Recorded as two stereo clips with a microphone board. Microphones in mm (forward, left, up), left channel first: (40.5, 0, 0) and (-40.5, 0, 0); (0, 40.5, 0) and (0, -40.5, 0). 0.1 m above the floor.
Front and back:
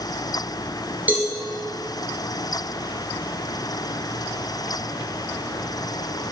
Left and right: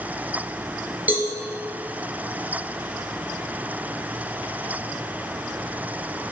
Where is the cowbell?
135° right, 1.5 m.